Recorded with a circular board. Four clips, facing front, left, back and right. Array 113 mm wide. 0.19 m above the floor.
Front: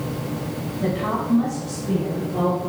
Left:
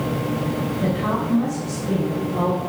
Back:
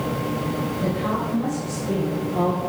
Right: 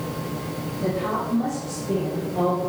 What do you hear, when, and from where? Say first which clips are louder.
0.8 s a woman speaking: even, front 3 dB; 55° left, 1.3 m; by 2.6 s 35° left, 3 m